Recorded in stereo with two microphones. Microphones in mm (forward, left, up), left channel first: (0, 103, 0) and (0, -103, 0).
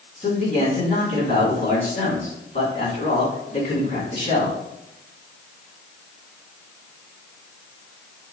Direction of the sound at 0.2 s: 40° left (ahead or behind).